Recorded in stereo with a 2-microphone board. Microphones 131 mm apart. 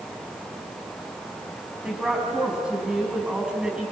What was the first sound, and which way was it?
A woman speaking, 5° right (ahead or behind).